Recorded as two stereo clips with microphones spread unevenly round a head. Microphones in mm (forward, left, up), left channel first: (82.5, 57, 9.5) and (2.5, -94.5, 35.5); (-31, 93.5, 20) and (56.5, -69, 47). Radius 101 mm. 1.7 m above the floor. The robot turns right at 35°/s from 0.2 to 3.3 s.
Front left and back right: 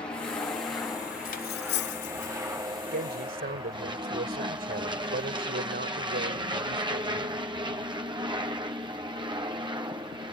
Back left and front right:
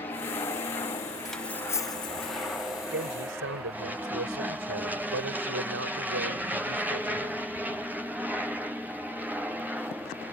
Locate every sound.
0.0 s an aircraft: 100° left; by 10.3 s 150° right
1.2 s cutlery clinking: 20° left; by 2.3 s 60° left
2.9 s a man speaking: 100° right; by 7.4 s 85° right